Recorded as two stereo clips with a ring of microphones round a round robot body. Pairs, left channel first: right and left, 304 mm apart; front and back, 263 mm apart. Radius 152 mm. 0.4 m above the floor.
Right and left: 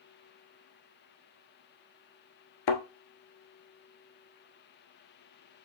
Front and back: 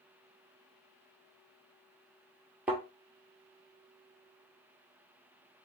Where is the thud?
95° right, 1.0 m.